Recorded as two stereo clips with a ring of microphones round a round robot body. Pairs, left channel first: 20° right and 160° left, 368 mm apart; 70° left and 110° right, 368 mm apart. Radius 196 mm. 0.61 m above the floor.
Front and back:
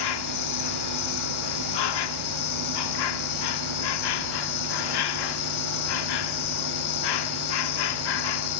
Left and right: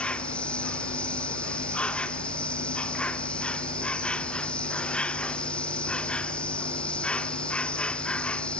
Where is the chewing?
No chewing in this recording.